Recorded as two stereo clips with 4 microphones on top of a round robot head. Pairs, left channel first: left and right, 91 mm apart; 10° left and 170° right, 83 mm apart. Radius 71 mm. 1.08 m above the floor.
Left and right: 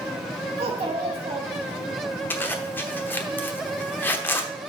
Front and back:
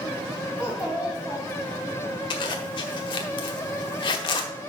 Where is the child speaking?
85° right, 1.7 m.